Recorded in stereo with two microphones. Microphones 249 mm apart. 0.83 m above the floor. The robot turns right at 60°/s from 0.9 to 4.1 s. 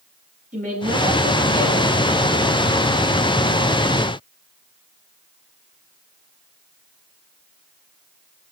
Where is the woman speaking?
30° right, 6 m; by 1.9 s 30° left, 6 m.